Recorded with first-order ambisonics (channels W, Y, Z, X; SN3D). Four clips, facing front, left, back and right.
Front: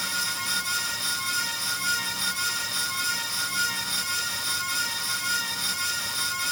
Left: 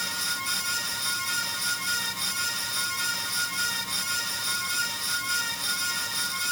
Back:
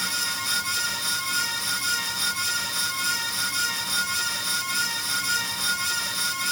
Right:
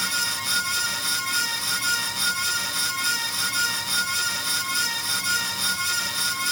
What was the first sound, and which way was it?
Only background noise.